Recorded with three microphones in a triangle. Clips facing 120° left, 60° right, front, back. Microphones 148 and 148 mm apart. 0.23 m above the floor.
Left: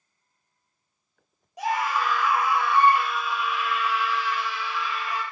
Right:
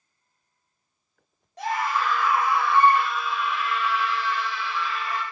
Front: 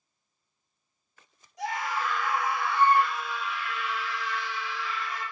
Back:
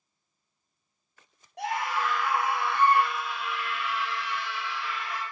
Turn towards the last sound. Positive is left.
turn(degrees=-160)